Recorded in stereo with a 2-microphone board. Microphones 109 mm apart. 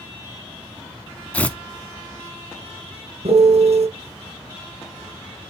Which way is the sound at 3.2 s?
75° right (ahead or behind).